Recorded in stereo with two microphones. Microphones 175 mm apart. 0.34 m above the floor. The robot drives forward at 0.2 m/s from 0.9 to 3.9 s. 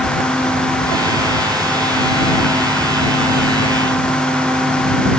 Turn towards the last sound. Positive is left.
No sound to turn to.